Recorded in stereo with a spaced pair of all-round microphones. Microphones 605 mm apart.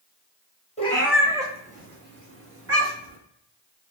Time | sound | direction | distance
0.8 | a cat meowing | 10° left (ahead or behind) | 0.7 m